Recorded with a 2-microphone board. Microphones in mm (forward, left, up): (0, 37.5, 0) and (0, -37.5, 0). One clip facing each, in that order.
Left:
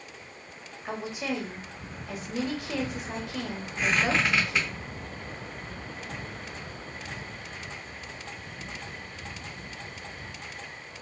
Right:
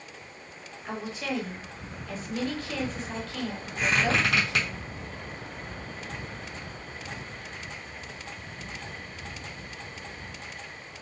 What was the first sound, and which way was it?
A woman speaking, 15° left (ahead or behind).